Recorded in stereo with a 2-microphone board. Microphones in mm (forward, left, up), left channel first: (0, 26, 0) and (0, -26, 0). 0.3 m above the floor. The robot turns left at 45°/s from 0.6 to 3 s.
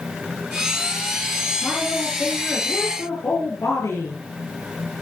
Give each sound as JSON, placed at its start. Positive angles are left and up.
{"t": 1.6, "sound": "a woman speaking", "azimuth_deg": 175, "distance_m": 4.5}